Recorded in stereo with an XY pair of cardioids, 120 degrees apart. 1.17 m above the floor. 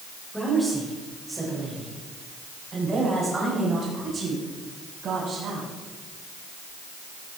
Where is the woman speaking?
5° left, 4 m; by 5.7 s 50° right, 6.5 m.